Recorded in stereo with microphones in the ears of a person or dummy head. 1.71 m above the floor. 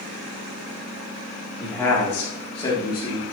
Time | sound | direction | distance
1.6 | a man speaking | 5° left (ahead or behind) | 3 m